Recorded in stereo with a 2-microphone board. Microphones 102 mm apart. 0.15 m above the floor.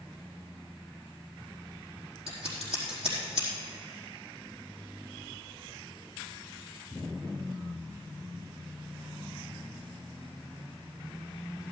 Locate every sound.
2.3 s scissors: 70° right (ahead or behind), 4.5 m